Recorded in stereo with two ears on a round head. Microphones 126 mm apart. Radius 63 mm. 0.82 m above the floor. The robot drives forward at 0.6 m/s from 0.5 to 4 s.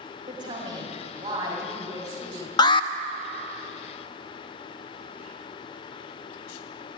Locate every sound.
0.3 s a woman speaking: 35° right (ahead or behind), 2.5 m; by 2.5 s 25° right (ahead or behind), 3.5 m
2.6 s an alarm: 30° left (ahead or behind), 0.6 m; by 2.9 s 40° left (ahead or behind), 0.5 m